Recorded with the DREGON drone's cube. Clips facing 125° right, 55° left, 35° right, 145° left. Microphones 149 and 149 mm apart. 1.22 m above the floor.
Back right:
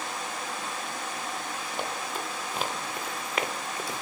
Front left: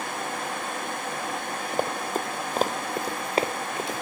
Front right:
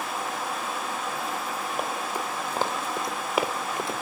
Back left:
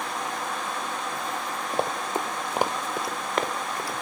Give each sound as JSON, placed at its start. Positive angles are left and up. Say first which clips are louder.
{"t": 1.7, "sound": "running footsteps", "louder": "front left 7 dB, back left 5 dB", "azimuth_deg": 90, "distance_m": 2.0}